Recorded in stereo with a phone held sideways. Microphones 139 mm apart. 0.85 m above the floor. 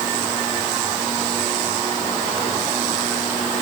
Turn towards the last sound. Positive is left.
No sound to turn to.